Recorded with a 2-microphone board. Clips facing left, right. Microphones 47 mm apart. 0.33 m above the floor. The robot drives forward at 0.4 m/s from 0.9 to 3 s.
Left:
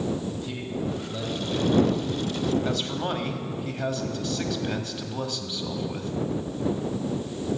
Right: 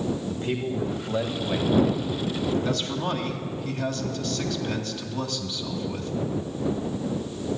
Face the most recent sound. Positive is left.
turn(degrees=15)  # may be behind; listen again after turning